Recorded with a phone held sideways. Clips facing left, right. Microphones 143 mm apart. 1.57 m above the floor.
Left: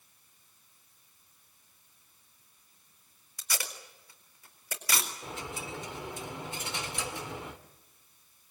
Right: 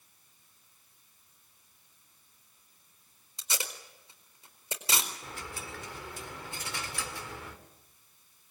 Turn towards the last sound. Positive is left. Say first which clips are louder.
# left 3 dB
turn(degrees=20)  # may be behind; listen again after turning